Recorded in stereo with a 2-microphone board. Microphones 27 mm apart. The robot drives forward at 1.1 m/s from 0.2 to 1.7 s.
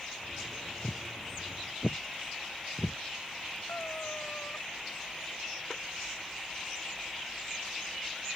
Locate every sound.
0.8 s footsteps: 35° left (ahead or behind); by 3.0 s 45° left (ahead or behind)
3.7 s a cat meowing: 75° left (ahead or behind)